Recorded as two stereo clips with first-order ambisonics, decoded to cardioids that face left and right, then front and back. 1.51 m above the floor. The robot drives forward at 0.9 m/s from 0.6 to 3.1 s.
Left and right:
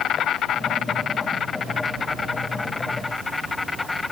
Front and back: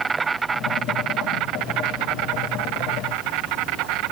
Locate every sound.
0.0 s an insect: 115° left; by 4.1 s 165° left